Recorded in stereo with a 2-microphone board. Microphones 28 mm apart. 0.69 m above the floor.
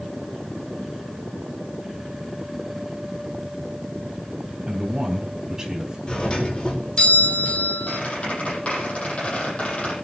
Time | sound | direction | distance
4.7 | a man speaking | 25° right (ahead or behind) | 3.5 m
6.1 | a doorbell | 30° left (ahead or behind) | 3.5 m
7.9 | a squeak | 45° left (ahead or behind) | 9 m